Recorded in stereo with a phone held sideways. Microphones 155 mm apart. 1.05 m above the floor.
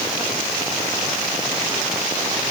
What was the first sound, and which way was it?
Only background noise.